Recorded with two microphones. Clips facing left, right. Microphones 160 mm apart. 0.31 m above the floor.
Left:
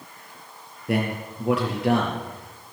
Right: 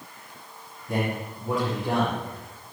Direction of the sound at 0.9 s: 80° left.